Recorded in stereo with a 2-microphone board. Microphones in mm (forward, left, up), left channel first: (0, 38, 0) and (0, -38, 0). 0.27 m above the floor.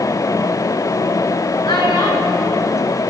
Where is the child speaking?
65° left (ahead or behind), 3 m.